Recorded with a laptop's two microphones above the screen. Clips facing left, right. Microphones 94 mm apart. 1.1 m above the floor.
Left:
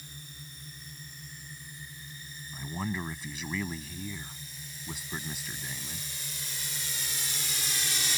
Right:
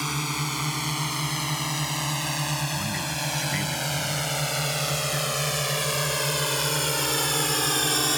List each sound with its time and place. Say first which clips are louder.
0.0 s a drone: right 21 dB; 85° right; by 8.2 s 55° right (ahead or behind)
2.5 s a man speaking: right 5 dB; 5° left (ahead or behind)